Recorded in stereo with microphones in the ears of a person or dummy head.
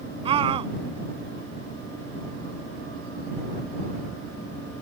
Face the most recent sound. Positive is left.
turn(degrees=-30)  # may be behind; listen again after turning